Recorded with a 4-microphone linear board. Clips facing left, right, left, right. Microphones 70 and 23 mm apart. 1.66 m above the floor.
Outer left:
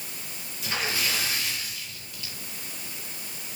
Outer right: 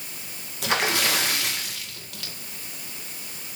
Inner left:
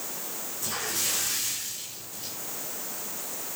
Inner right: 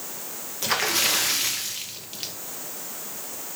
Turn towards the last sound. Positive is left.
turn(degrees=-65)  # may be behind; listen again after turning